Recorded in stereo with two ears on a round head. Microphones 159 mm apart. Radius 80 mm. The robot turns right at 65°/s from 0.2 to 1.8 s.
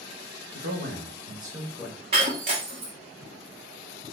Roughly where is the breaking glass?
Right.